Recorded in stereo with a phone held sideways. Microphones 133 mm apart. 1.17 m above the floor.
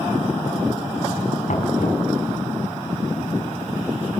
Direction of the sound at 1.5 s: 65° left (ahead or behind).